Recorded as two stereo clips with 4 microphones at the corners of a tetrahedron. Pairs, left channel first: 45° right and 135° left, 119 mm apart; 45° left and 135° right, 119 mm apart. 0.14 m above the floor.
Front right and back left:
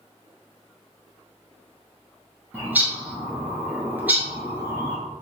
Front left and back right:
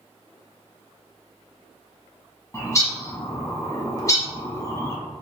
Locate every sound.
2.5 s a bird: 80° left, 1.0 m